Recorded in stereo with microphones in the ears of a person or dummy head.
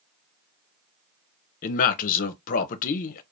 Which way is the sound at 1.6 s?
40° left (ahead or behind).